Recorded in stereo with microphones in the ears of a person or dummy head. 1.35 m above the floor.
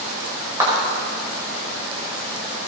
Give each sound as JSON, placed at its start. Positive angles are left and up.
{"t": 0.6, "sound": "a clap", "side_deg": -20, "distance_m": 5.5}